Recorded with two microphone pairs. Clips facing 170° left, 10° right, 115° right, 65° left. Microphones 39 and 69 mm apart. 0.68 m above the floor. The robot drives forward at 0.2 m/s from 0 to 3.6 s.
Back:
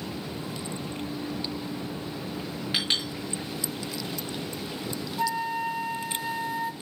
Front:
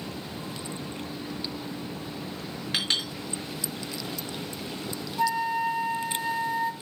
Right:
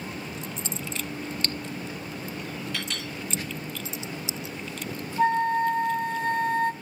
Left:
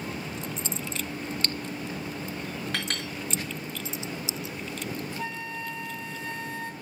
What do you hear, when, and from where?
2.7 s a clink: 85° left, 4.5 m
5.2 s a flute: 100° right, 0.7 m